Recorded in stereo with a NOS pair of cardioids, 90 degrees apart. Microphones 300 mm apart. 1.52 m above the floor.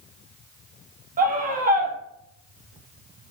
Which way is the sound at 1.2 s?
30° right.